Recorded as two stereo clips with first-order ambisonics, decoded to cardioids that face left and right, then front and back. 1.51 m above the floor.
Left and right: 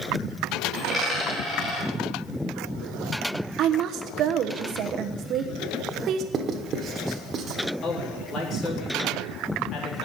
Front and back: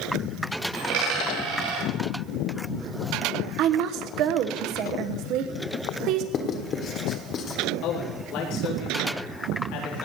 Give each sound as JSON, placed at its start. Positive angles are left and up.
{"t": 0.7, "sound": "a dropped coin", "azimuth_deg": 175, "distance_m": 8.0}
{"t": 3.6, "sound": "a woman speaking", "azimuth_deg": -140, "distance_m": 1.1}
{"t": 6.3, "sound": "writing", "azimuth_deg": -40, "distance_m": 1.5}
{"t": 7.8, "sound": "a man speaking", "azimuth_deg": 30, "distance_m": 3.5}